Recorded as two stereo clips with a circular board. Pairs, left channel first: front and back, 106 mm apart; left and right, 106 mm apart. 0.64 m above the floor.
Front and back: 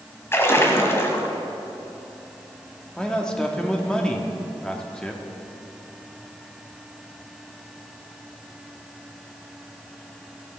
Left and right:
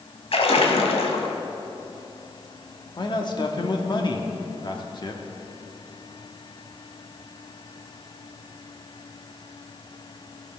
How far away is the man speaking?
About 1.2 m.